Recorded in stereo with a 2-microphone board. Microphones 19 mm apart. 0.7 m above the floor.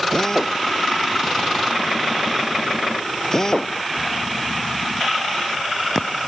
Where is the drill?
30° left (ahead or behind).